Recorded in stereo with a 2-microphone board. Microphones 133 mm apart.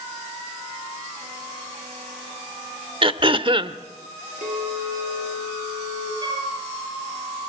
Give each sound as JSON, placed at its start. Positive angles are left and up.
{"t": 3.0, "sound": "throat clearing", "side_deg": -40, "distance_m": 1.1}
{"t": 4.4, "sound": "a clink", "side_deg": -65, "distance_m": 8.0}
{"t": 6.2, "sound": "a flute", "side_deg": -35, "distance_m": 6.5}